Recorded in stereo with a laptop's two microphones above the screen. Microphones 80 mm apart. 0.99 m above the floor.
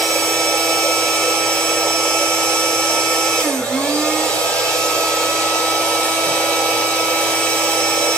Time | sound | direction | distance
0.0 | a machine running | 15° left (ahead or behind) | 0.8 m